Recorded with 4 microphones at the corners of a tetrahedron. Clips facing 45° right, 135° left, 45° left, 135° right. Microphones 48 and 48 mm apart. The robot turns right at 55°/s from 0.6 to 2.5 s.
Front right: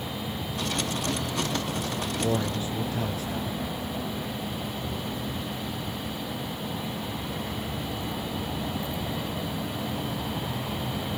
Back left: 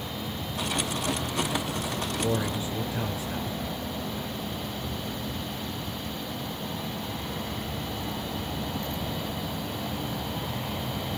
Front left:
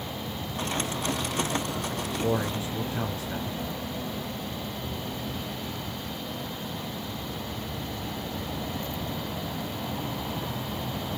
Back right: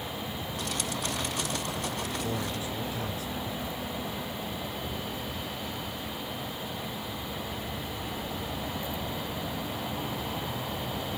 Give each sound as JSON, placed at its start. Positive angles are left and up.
{"t": 2.2, "sound": "a man speaking", "azimuth_deg": 45, "distance_m": 3.5}